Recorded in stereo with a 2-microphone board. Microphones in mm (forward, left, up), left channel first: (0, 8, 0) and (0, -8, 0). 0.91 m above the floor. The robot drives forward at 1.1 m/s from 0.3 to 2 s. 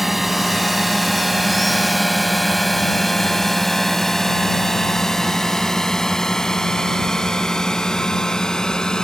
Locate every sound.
0.0 s a drone: 15° right (ahead or behind); by 9.1 s 45° left (ahead or behind)